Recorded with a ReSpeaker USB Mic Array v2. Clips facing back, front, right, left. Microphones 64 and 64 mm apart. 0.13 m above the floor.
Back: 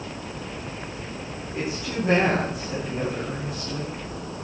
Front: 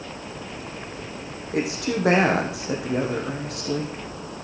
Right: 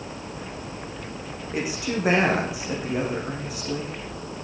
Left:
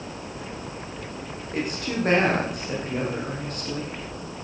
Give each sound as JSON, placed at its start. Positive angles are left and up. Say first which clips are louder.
{"t": 1.5, "sound": "a woman speaking", "louder": "front 5 dB, even", "azimuth_deg": -10, "distance_m": 6.5}